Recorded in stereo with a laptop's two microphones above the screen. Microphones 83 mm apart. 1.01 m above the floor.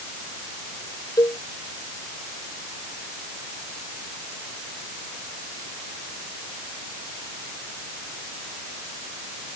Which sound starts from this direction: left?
A cowbell, at 1.2 s.